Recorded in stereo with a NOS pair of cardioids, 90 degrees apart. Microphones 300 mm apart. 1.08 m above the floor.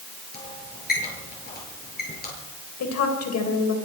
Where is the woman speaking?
60° left, 4 m.